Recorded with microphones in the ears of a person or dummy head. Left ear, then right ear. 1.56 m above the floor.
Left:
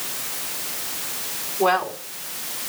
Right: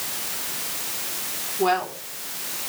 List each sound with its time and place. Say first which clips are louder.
1.6 s a woman speaking: left 2 dB; centre (ahead or behind), 4 m